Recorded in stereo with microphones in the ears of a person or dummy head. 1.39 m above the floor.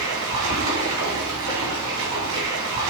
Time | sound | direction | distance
0.0 | running water | 70° right (ahead or behind) | 3 m